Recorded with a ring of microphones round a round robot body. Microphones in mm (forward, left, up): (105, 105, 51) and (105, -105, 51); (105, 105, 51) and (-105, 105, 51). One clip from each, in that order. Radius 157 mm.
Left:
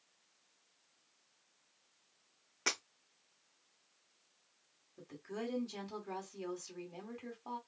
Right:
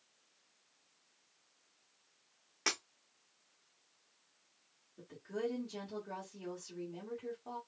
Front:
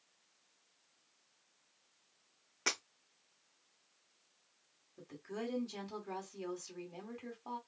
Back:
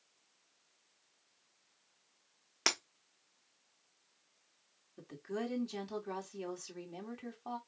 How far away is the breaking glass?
About 1.1 m.